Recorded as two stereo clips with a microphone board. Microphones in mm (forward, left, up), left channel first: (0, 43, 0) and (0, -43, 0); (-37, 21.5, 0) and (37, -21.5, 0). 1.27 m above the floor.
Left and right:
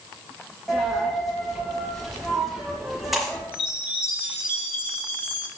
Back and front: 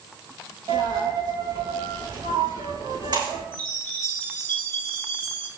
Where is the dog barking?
No dog barking in this recording.